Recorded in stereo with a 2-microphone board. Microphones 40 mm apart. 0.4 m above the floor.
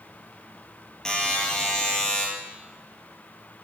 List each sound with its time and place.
1.1 s a buzzer: 20° left (ahead or behind), 2.5 m